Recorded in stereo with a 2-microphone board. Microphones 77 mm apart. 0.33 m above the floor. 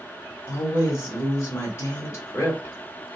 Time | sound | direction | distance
0.5 | a woman speaking | 35° left (ahead or behind) | 1.0 m